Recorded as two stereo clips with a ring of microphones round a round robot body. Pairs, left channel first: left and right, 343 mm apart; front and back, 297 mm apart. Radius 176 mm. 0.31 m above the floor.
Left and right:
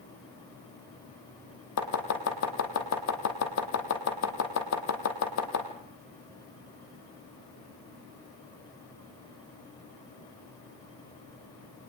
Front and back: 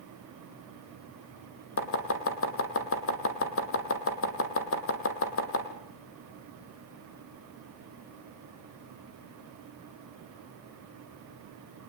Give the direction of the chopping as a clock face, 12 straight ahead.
11 o'clock.